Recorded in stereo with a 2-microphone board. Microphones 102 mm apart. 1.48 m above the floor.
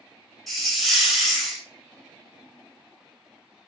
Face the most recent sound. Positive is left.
turn(degrees=0)  # may be behind; listen again after turning